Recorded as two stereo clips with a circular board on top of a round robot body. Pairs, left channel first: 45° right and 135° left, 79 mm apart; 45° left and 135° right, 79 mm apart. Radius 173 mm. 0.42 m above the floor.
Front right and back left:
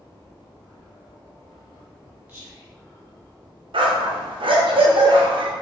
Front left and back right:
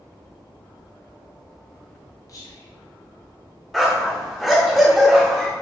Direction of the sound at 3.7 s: 135° left.